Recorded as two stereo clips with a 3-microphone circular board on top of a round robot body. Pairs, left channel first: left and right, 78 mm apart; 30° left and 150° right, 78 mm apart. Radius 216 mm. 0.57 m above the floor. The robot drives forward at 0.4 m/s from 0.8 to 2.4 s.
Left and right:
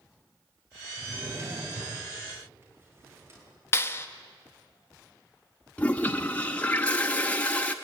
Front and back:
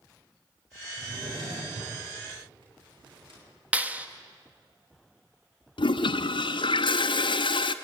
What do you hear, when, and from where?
1.0 s a drawer: 145° right, 8 m; by 3.4 s 150° right, 8.5 m
3.7 s a clap: 140° left, 1.3 m
5.8 s a toilet flushing: 15° left, 0.6 m